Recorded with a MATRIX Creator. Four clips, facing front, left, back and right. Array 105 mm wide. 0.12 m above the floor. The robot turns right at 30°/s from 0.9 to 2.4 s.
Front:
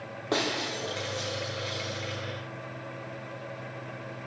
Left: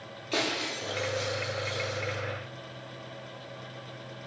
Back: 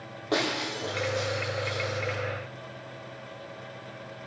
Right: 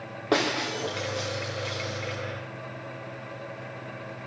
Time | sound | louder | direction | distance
0.3 | breaking glass | right 6 dB, back 1 dB | 85° right | 3.5 m